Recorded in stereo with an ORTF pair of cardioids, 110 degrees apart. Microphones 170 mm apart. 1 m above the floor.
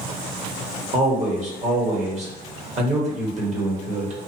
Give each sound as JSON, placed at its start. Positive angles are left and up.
{"t": 0.9, "sound": "a man speaking", "azimuth_deg": -45, "distance_m": 1.2}